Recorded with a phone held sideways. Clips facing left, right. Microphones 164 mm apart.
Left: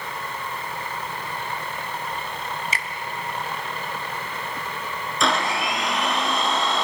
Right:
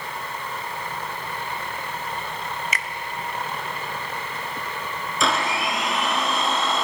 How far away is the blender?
About 3 m.